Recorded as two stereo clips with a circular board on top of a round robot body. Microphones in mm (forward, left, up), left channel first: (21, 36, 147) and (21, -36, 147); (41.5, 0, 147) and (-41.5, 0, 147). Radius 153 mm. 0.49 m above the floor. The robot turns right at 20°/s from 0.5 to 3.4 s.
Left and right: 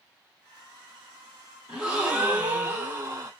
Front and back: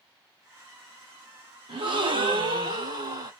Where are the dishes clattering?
No dishes clattering in this recording.